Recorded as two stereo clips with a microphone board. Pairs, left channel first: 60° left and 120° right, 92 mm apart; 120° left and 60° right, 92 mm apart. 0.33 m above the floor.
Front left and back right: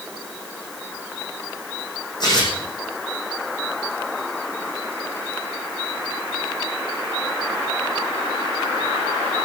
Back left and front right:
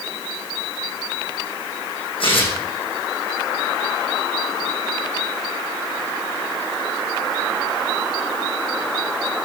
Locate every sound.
2.2 s tearing paper: 100° left, 7.5 m